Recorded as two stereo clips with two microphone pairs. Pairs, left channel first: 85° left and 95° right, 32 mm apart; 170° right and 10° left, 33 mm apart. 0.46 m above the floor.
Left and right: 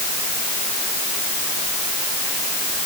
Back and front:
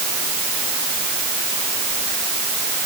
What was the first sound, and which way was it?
Only background noise.